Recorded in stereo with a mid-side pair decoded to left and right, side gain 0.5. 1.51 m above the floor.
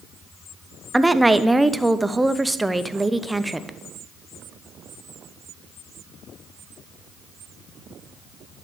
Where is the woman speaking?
10° right, 0.6 m.